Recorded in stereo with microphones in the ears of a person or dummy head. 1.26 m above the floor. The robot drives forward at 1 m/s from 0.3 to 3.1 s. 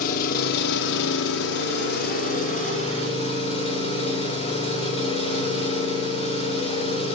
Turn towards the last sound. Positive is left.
turn(degrees=30)  # may be behind; listen again after turning